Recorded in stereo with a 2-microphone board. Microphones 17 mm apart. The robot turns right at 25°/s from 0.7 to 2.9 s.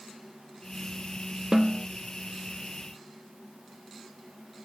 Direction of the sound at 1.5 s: 35° right (ahead or behind).